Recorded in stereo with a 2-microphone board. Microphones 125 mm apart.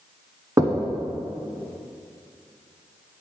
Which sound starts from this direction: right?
Knocking, at 0.6 s.